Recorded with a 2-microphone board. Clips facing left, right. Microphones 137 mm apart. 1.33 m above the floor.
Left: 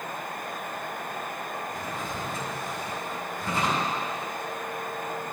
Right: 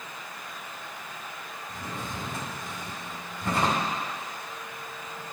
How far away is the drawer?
About 3.5 m.